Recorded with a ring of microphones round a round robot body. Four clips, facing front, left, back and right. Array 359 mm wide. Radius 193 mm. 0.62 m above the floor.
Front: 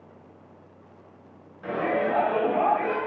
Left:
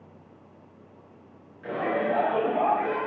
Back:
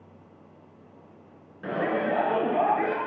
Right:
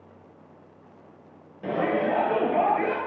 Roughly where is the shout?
Behind right.